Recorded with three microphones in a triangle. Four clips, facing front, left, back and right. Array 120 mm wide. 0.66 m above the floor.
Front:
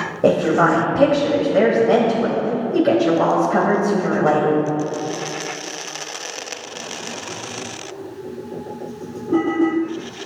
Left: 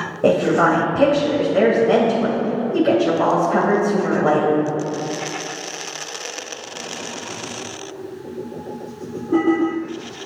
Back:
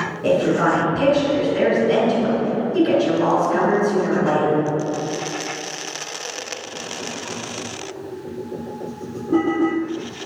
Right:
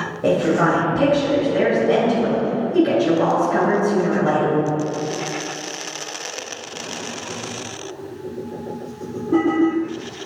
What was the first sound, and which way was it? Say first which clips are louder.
A woman speaking: left 2 dB, front 2 dB; 35° left.